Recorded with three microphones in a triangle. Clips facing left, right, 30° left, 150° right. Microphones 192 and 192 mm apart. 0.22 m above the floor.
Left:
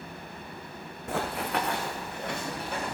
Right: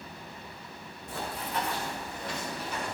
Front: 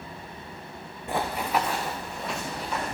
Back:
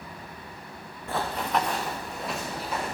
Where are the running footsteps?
100° left, 1.0 m; by 3.0 s 125° left, 3 m.